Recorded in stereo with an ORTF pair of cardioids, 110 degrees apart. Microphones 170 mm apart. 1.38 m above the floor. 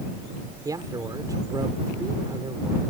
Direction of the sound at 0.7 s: 20° right.